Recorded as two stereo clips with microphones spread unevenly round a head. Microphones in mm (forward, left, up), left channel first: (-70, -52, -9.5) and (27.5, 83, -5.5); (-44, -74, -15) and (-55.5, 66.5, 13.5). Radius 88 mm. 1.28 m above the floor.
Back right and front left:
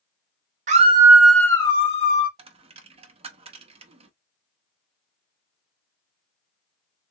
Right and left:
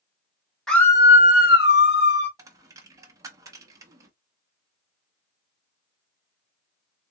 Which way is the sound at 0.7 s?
Straight ahead.